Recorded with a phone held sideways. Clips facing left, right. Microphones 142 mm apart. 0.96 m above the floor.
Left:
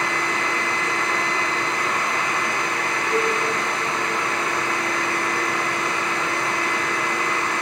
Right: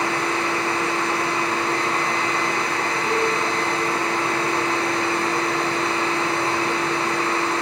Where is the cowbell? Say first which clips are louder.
Even; 20° right (ahead or behind), 1.3 m.